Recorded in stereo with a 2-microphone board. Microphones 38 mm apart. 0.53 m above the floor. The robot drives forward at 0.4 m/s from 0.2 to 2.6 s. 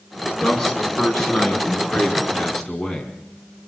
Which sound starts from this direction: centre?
A man speaking, at 0.4 s.